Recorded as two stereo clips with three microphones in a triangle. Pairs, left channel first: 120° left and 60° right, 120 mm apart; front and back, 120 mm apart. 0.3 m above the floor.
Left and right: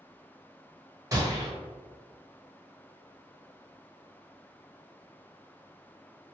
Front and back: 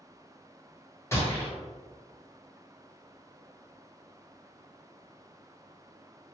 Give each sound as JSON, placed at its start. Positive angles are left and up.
{"t": 1.1, "sound": "a gunshot", "azimuth_deg": -40, "distance_m": 1.4}